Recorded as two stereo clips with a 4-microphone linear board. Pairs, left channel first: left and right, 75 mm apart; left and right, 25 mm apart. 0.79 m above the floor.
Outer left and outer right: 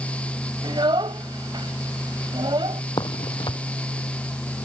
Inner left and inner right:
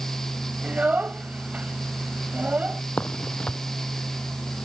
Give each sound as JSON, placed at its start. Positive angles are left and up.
{"t": 0.6, "sound": "a child speaking", "side_deg": -85}
{"t": 3.0, "sound": "a crack", "side_deg": 70}